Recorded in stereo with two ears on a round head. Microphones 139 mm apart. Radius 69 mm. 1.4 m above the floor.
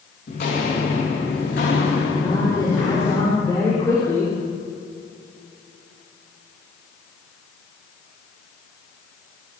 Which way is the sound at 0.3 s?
60° left (ahead or behind).